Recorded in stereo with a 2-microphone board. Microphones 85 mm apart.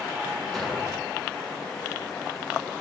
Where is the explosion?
Centre (ahead or behind), 6.5 m.